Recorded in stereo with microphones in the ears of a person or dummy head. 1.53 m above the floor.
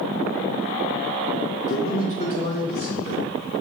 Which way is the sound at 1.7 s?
50° left (ahead or behind).